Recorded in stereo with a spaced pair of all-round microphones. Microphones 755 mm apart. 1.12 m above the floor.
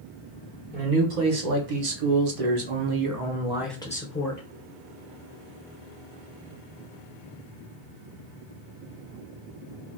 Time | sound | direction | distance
0.7 | a man speaking | 70° right (ahead or behind) | 1.6 m